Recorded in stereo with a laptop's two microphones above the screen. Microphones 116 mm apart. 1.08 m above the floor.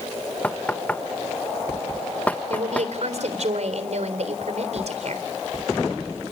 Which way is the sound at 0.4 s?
10° left (ahead or behind).